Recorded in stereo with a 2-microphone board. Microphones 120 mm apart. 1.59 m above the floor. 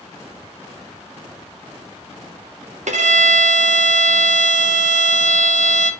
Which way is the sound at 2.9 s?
75° right (ahead or behind).